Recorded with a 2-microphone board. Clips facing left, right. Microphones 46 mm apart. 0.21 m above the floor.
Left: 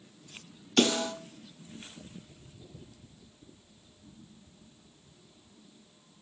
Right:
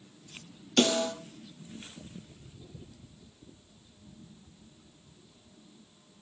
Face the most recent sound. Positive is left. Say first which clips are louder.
# even
turn(degrees=5)  # may be behind; listen again after turning